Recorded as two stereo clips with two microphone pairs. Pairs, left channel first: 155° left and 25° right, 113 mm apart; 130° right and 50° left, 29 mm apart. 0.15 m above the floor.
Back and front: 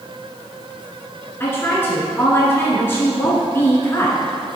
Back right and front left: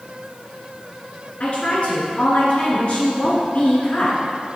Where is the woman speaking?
145° right, 1.8 m.